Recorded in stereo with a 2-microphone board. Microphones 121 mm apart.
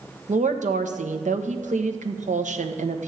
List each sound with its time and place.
0.3 s a woman speaking: 85° right, 1.3 m